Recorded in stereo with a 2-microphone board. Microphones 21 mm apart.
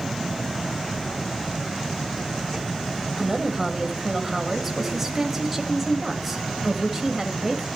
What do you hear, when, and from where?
3.2 s a woman speaking: 15° right (ahead or behind), 1.5 m